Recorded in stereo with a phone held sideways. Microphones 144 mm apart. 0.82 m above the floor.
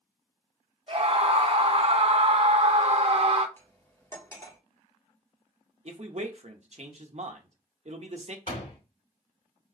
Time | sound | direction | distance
0.9 | a scream | 45° right (ahead or behind) | 0.9 m
3.6 | cutlery clinking | 20° left (ahead or behind) | 1.2 m
5.8 | a man speaking | 55° right (ahead or behind) | 0.7 m
8.5 | a door slam | 75° left (ahead or behind) | 2 m